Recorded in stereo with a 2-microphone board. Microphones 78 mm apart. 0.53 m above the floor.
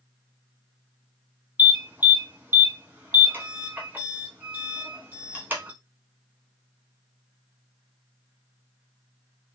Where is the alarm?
20° right (ahead or behind), 1.8 m.